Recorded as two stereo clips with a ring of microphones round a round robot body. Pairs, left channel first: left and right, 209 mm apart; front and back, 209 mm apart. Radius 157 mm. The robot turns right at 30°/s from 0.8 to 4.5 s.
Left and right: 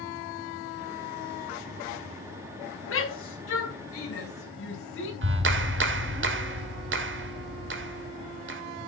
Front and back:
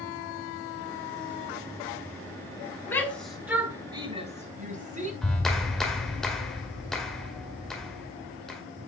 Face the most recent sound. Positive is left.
turn(degrees=-90)